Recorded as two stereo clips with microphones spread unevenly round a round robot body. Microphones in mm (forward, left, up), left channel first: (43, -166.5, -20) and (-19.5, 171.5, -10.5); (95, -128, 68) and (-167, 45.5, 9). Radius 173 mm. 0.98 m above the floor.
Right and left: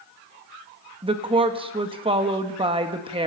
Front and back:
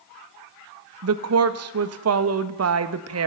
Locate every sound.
1.0 s a woman speaking: 175° left, 1.3 m